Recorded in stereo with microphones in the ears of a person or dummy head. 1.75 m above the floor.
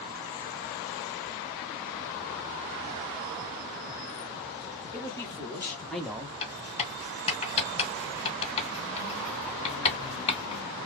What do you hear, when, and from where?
4.9 s a man speaking: 25° left (ahead or behind), 1.2 m; by 6.3 s 10° right (ahead or behind), 0.6 m
6.4 s writing: 35° left (ahead or behind), 1.6 m